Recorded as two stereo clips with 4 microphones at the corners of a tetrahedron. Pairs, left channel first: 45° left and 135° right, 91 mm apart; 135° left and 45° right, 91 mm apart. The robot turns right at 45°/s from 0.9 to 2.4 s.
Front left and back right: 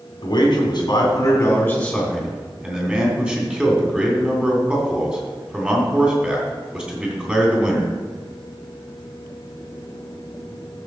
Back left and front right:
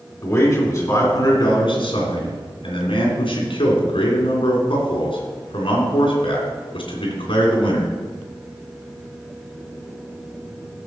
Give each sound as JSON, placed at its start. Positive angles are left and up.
{"t": 0.2, "sound": "a man speaking", "azimuth_deg": 80, "distance_m": 3.0}